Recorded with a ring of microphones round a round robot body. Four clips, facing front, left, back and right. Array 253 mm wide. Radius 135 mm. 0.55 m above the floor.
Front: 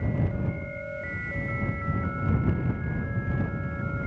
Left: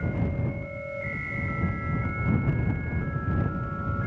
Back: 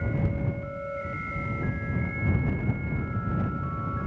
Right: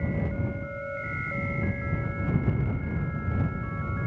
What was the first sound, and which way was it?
Only background noise.